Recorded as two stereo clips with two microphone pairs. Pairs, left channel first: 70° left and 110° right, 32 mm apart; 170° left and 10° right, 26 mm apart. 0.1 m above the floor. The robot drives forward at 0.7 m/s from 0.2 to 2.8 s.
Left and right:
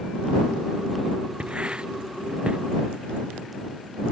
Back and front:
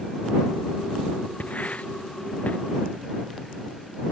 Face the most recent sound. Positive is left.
turn(degrees=-165)